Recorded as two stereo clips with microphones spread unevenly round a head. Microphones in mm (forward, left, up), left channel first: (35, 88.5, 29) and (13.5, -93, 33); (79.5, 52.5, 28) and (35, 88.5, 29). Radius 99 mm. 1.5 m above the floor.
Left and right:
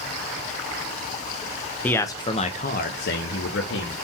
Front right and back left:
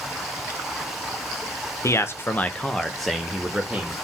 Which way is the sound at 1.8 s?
Straight ahead.